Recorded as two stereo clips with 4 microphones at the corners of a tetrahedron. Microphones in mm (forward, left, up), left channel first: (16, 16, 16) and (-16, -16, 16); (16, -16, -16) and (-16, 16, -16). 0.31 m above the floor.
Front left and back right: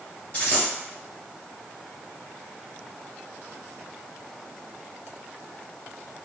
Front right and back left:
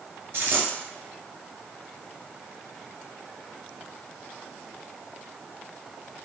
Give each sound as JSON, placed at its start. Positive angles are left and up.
{"t": 0.3, "sound": "a dropped coin", "azimuth_deg": 95, "distance_m": 1.9}